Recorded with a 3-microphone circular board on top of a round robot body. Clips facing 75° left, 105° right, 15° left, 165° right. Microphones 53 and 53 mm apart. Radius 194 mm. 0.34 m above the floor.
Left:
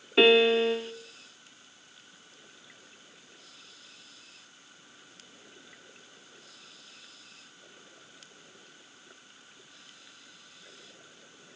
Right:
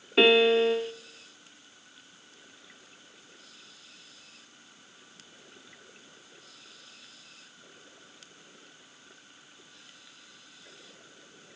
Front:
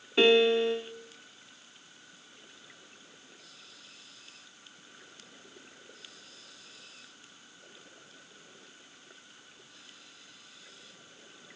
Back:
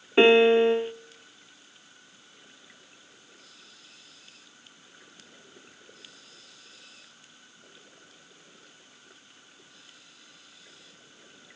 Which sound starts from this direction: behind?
A piano, at 0.2 s.